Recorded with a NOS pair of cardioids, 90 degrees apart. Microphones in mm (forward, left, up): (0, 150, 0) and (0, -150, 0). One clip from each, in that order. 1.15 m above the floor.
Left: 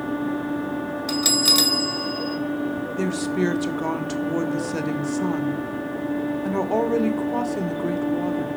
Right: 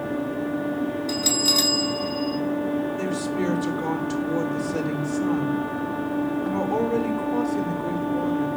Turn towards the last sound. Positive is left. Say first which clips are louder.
# left 2 dB
turn(degrees=40)